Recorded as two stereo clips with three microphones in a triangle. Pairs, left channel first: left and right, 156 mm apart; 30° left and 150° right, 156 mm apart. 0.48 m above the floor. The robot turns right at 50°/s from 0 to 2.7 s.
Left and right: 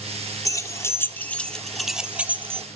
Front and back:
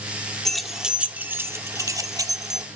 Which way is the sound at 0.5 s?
110° left.